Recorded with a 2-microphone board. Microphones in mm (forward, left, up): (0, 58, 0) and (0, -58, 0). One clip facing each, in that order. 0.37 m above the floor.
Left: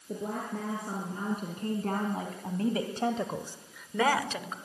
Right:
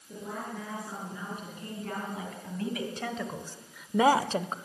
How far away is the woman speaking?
About 6 m.